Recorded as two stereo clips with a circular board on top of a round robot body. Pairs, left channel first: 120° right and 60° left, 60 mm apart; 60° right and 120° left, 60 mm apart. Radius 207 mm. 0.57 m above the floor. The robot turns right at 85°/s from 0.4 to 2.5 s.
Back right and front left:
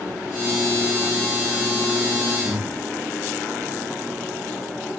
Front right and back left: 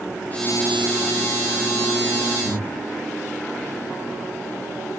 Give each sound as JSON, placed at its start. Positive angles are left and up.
{"t": 2.4, "sound": "breathing", "azimuth_deg": 0, "distance_m": 0.7}